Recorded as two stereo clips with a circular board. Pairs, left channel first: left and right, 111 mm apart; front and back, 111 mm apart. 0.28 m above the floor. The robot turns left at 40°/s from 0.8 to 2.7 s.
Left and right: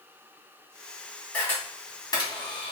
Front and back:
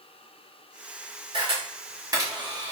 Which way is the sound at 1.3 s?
165° left.